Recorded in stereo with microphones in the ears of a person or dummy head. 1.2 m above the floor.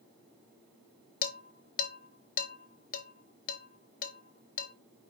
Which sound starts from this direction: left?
Dishes clattering, at 1.2 s.